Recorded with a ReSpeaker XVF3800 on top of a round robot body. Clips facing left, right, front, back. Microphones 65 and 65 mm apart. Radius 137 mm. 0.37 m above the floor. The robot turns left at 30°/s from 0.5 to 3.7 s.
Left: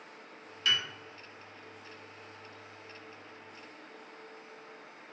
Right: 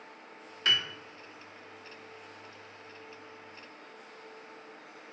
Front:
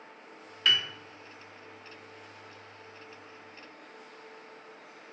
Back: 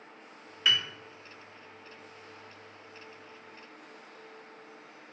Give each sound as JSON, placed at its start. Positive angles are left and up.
{"t": 0.7, "sound": "a piano", "azimuth_deg": -100, "distance_m": 0.7}